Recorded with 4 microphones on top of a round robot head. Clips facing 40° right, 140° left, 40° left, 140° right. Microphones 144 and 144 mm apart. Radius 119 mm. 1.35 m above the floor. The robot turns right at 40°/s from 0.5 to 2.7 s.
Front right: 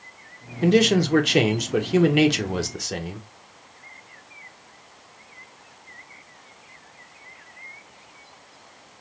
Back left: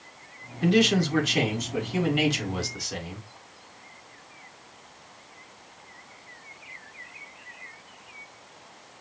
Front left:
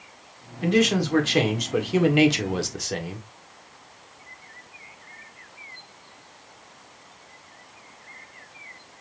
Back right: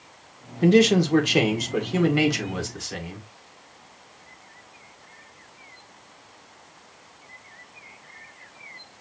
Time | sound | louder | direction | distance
0.6 | a man speaking | front right 4 dB, back right 4 dB | 90° right | 1.5 m